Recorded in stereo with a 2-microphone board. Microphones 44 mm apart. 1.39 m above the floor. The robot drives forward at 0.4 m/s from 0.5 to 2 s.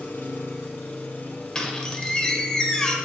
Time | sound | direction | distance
0.0 | an engine running | 55° left (ahead or behind) | 1.2 m
1.6 | a squeak | 15° left (ahead or behind) | 1.1 m